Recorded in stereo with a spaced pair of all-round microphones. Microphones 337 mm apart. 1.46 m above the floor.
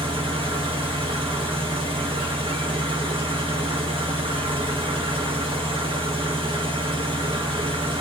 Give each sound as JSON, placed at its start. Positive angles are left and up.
{"t": 0.0, "sound": "an engine running", "side_deg": -15, "distance_m": 1.2}